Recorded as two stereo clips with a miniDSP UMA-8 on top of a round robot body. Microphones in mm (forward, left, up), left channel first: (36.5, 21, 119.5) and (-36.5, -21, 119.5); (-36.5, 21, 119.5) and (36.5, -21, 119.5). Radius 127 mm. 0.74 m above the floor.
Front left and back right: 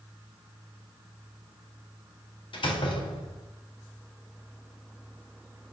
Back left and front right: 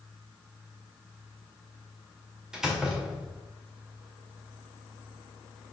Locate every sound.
2.5 s a door slam: 55° left, 2 m